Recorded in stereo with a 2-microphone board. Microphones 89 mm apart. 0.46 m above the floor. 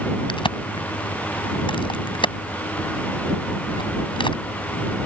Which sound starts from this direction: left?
A crack, at 0.3 s.